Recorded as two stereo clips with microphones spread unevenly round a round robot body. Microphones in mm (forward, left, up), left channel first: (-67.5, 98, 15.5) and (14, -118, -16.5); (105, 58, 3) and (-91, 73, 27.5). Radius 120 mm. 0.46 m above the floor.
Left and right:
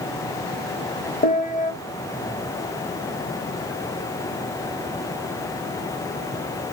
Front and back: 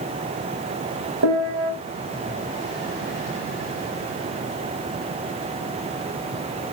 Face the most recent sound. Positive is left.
turn(degrees=170)